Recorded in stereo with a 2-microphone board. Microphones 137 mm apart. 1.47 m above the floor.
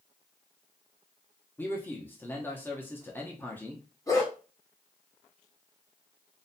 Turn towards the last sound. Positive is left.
turn(degrees=25)  # may be behind; listen again after turning